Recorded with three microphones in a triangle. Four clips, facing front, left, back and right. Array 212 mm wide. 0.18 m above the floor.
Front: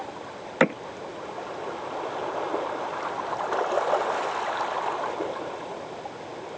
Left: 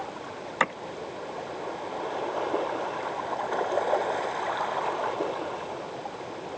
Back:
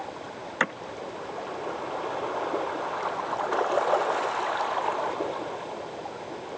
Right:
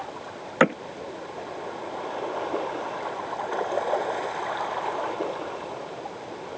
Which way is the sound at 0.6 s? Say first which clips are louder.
Right 7 dB, front 7 dB; 50° right.